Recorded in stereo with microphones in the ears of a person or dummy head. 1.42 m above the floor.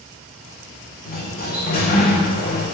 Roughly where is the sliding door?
Left.